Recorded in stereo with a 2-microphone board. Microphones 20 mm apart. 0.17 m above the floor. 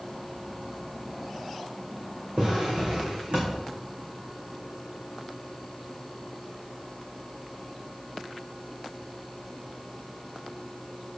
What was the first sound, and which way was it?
A drawer, 65° right (ahead or behind).